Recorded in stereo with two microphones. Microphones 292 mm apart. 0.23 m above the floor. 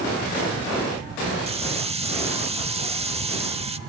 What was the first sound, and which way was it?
A hiss, 20° right (ahead or behind).